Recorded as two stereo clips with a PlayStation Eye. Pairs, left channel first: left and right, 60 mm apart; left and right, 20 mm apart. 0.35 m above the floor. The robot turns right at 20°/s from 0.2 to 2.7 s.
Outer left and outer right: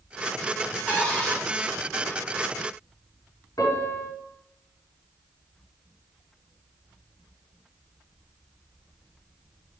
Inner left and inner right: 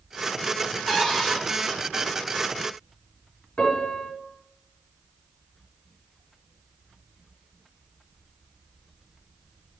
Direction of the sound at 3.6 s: 75° left (ahead or behind).